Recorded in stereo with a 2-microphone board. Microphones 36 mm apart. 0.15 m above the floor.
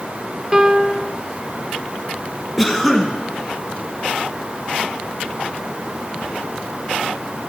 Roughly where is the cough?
Centre.